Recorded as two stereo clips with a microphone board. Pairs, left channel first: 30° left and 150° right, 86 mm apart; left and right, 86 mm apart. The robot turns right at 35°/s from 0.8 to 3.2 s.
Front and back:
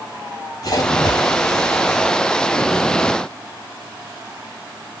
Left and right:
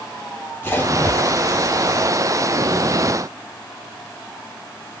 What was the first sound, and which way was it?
A splash, 30° left.